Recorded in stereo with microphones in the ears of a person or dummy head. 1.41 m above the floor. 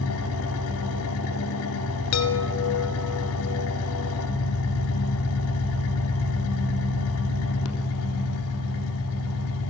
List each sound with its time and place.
0.0 s an engine running: 75° left (ahead or behind), 3.5 m
2.1 s a chime: 75° left (ahead or behind), 1.9 m